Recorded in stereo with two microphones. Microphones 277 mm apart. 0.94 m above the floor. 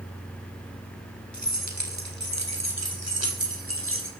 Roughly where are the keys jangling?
Right.